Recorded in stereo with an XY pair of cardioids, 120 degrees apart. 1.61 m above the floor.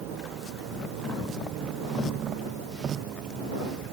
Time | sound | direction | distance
0.0 | a vehicle | 70° right | ?